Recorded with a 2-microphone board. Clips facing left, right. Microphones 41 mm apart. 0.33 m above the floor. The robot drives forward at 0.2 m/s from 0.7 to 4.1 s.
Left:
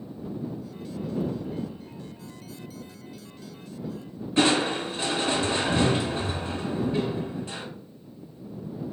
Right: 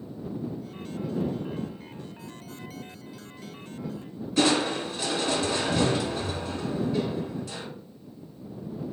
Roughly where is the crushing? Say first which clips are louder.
Left 1 dB; left.